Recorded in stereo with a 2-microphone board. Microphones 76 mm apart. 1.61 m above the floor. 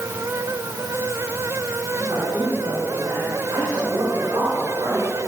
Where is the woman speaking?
65° right (ahead or behind), 5.5 m; by 5.3 s 60° right (ahead or behind), 8 m.